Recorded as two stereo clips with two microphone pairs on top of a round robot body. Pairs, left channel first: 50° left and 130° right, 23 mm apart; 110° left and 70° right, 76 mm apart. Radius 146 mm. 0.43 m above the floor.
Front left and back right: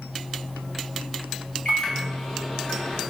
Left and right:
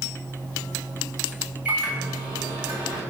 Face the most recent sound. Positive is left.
turn(degrees=5)